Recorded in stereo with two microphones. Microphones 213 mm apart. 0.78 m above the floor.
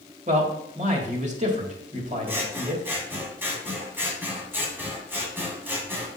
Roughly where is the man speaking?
Right.